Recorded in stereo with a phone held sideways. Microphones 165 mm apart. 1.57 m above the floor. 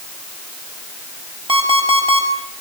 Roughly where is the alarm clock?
Right.